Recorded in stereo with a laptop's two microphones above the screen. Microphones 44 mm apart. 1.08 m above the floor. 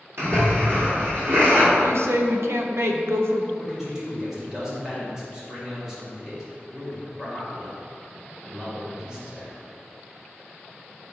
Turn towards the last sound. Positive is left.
turn(degrees=-15)  # may be behind; listen again after turning